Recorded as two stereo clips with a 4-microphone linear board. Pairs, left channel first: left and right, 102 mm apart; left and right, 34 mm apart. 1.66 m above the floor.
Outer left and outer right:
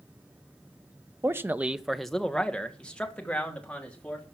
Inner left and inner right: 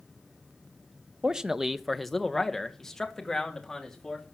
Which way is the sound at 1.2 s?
25° right (ahead or behind).